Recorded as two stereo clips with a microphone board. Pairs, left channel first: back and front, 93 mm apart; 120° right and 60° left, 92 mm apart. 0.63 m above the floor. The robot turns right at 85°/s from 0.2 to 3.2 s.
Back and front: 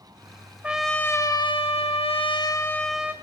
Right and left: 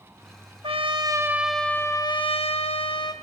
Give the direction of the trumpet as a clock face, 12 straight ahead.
9 o'clock.